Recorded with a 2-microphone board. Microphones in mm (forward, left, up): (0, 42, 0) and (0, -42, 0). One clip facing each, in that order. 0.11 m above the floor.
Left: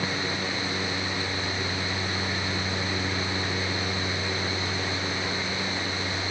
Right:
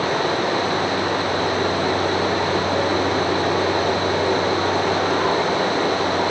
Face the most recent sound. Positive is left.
turn(degrees=-65)  # may be behind; listen again after turning